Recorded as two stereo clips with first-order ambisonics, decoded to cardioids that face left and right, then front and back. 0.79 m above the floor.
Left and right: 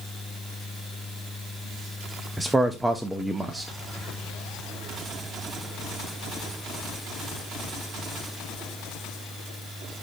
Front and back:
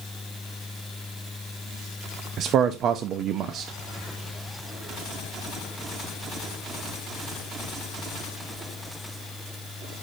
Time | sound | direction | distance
2.4 | a man speaking | 175° right | 0.5 m